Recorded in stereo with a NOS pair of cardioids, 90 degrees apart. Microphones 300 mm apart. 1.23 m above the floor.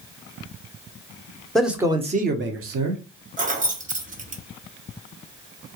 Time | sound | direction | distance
1.6 | a man speaking | straight ahead | 0.9 m
3.4 | keys jangling | 25° right | 0.9 m